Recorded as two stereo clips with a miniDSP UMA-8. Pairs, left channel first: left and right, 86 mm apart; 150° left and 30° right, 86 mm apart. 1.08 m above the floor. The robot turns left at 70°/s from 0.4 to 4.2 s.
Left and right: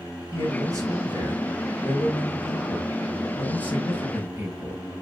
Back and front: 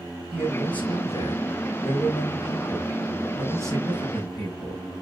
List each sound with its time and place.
0.3 s a man speaking: 115° right, 5.5 m; by 4.8 s 20° right, 5.5 m